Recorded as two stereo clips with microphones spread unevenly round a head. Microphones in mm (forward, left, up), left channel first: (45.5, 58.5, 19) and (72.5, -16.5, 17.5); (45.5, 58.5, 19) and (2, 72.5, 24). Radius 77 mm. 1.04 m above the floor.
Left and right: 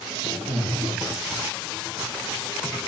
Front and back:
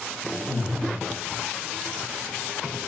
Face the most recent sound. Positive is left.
turn(degrees=-120)